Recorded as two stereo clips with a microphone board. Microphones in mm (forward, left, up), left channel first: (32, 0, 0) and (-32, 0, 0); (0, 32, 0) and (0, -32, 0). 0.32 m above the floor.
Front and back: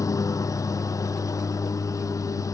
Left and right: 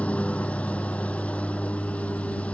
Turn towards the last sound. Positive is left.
turn(degrees=20)